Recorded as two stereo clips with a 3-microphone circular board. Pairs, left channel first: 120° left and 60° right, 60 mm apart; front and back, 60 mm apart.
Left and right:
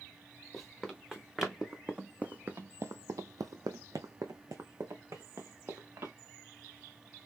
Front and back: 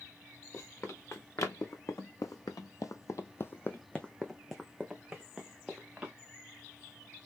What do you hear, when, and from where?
0.5 s running footsteps: 30° left, 1.5 m; by 6.1 s 105° right, 1.7 m